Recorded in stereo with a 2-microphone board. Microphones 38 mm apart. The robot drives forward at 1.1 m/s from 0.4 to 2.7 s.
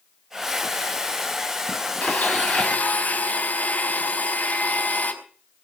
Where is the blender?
40° left (ahead or behind), 5.5 m; by 5.1 s 45° left (ahead or behind), 5 m.